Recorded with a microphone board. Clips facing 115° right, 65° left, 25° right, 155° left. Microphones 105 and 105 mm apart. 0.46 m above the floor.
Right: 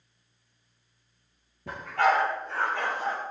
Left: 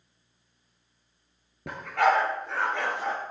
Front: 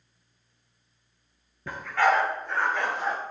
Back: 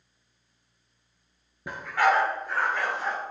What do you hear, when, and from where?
1.7 s a dog barking: 85° left, 3.5 m; by 3.2 s 65° left, 3.5 m